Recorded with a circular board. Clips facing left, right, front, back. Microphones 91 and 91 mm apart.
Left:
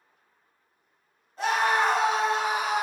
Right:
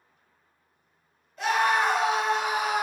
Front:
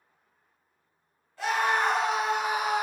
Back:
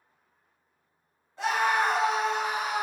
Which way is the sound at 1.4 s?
125° left.